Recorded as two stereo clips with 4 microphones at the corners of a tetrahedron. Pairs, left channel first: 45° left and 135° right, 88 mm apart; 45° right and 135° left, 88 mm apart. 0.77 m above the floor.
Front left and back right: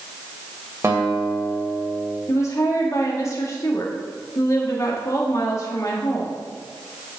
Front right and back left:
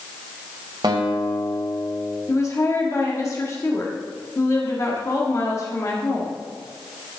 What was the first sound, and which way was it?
A guitar, 165° left.